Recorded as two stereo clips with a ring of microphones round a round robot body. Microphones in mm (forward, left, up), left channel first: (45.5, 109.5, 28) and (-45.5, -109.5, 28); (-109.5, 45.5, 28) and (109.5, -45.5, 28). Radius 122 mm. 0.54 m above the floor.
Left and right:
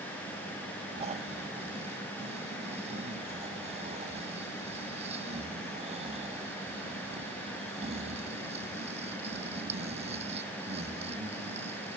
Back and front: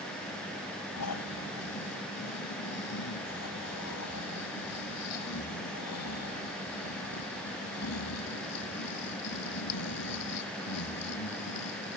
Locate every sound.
1.0 s snoring: straight behind